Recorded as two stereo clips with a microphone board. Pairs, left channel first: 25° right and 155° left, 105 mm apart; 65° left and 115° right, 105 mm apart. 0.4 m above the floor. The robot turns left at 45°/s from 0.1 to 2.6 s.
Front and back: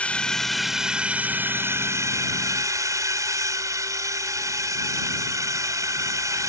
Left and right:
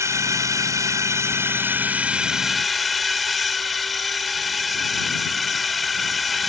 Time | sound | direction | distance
0.0 | a drone | 90° right | ?